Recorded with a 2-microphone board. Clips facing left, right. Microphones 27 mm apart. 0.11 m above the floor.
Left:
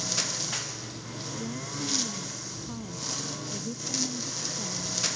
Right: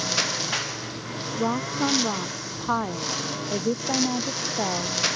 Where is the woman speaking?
70° right (ahead or behind).